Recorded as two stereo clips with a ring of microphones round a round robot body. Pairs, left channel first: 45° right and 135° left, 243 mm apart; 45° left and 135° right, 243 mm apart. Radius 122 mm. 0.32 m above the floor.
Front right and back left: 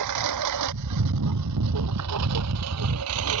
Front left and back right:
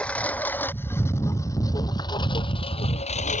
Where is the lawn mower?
130° left; by 3.4 s 105° left.